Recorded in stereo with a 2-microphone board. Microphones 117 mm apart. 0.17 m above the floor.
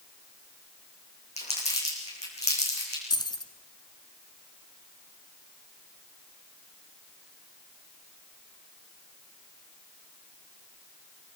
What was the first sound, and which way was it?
Crumpling, 65° left (ahead or behind).